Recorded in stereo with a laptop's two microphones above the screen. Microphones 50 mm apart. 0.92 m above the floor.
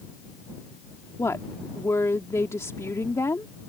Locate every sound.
1.2 s a woman speaking: 75° left (ahead or behind)